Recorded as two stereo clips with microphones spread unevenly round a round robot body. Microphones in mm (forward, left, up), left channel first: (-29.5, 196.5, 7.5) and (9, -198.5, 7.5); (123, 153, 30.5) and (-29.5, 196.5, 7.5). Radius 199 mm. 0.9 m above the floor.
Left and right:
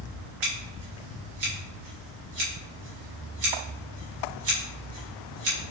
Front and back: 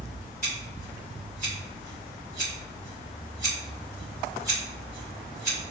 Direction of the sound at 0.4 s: 70° right.